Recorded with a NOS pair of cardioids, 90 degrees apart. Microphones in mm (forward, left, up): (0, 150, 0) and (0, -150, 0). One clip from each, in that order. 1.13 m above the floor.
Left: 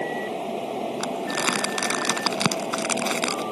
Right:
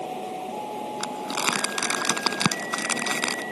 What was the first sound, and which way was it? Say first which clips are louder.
A fan: left 3 dB; 40° left.